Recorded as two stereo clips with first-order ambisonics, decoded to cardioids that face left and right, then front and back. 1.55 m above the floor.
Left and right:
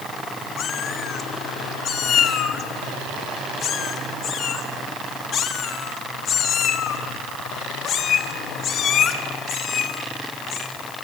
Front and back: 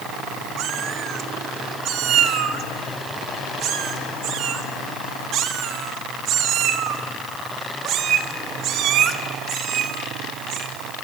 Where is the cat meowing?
140° left, 1.5 m.